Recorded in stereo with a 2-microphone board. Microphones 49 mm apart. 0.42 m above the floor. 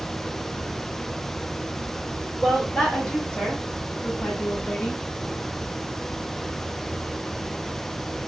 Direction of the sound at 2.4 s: 10° left (ahead or behind).